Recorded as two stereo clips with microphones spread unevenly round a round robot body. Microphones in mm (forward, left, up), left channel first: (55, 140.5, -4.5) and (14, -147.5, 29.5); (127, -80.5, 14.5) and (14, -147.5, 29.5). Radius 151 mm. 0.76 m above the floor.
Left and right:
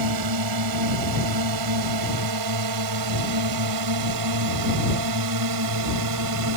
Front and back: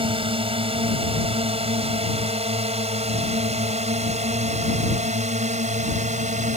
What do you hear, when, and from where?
0.0 s a drone: 105° right; by 6.6 s 130° right